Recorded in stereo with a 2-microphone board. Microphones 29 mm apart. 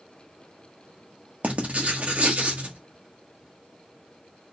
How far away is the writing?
About 1.3 m.